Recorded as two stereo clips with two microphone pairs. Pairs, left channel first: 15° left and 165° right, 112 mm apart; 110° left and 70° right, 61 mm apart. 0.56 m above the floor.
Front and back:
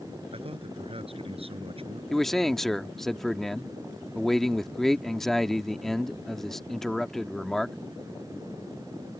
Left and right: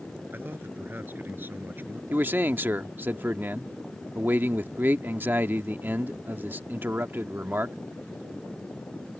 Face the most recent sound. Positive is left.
turn(degrees=-70)